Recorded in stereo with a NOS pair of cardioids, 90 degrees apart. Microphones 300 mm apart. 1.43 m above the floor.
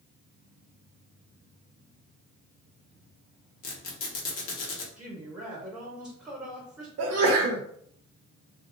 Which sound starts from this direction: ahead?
A woman speaking, at 5.0 s.